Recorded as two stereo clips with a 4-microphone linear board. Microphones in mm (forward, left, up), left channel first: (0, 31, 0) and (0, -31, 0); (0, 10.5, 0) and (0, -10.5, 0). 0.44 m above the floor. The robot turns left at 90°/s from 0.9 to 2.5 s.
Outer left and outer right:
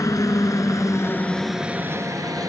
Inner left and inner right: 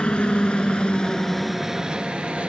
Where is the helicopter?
65° left (ahead or behind); by 2.5 s 75° right (ahead or behind).